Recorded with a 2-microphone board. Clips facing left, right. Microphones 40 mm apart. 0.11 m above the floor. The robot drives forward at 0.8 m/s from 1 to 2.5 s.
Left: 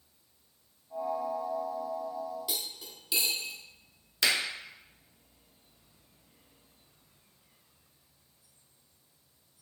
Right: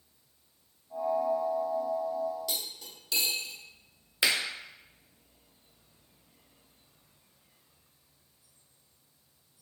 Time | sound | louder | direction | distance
2.5 | cutlery clinking | right 1 dB | 15° left (ahead or behind) | 0.7 m
4.2 | a finger snap | even | 15° right (ahead or behind) | 1.1 m